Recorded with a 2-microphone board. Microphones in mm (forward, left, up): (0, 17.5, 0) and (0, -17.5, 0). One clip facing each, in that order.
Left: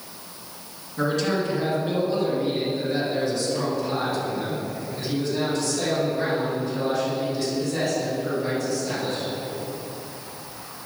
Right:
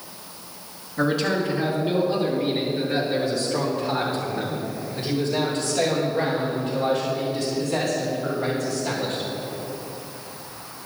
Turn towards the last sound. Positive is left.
turn(degrees=-50)  # may be behind; listen again after turning